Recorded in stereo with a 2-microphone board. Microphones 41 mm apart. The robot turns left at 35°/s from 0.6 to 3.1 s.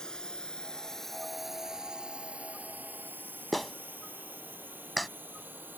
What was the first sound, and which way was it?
A drone, 20° left (ahead or behind).